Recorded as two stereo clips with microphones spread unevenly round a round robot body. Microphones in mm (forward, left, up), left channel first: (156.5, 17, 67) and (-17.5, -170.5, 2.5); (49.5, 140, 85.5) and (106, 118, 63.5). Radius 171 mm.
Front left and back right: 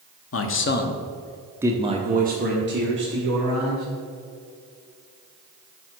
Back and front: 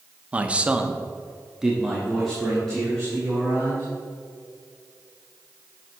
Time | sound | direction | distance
0.3 | a man speaking | 20° left | 1.1 m